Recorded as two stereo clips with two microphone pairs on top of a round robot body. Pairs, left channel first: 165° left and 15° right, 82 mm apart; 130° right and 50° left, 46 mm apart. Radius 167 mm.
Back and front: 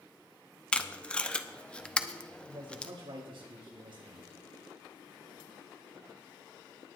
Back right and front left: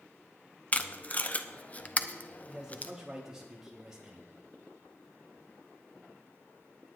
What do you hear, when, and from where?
0.7 s tape being pulled: 150° right, 1.1 m
2.4 s a man speaking: 25° right, 3.5 m